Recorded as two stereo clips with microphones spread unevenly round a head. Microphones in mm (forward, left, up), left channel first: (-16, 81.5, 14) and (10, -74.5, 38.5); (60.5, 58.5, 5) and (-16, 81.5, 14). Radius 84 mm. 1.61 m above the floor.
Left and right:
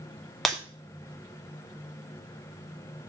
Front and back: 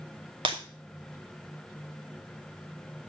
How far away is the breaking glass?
About 2.5 m.